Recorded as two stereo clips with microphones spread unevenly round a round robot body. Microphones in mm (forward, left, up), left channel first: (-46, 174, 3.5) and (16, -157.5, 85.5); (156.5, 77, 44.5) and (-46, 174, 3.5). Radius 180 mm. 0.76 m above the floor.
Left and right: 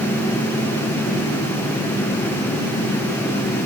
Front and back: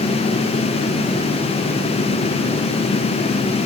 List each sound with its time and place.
Only background noise.